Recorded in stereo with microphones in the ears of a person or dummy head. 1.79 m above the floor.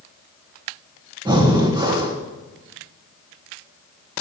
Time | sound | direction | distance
1.2 | breathing | 20° right (ahead or behind) | 1.4 m